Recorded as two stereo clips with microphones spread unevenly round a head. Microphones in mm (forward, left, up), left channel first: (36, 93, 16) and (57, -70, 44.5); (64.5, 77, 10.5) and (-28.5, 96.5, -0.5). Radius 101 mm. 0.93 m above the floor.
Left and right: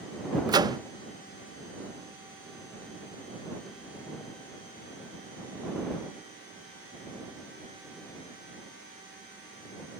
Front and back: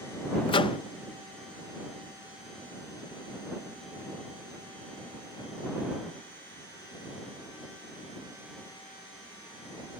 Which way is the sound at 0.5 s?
15° right.